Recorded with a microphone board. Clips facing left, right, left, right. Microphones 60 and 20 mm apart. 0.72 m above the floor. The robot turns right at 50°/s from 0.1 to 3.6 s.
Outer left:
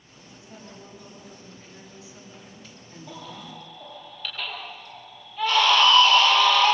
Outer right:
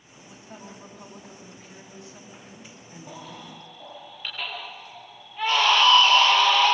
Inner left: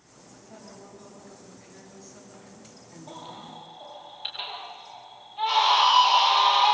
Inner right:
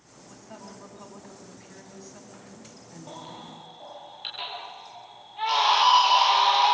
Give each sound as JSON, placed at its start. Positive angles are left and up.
{"t": 0.3, "sound": "a woman speaking", "azimuth_deg": -155, "distance_m": 6.5}
{"t": 3.1, "sound": "a baby crying", "side_deg": -45, "distance_m": 8.0}